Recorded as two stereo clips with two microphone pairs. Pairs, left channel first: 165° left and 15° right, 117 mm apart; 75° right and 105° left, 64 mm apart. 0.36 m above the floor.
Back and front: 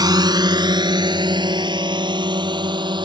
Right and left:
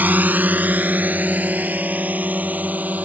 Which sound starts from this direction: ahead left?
A drone, at 0.0 s.